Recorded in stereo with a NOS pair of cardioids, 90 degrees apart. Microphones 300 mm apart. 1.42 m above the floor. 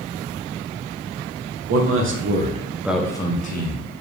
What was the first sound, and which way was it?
A man speaking, 55° right.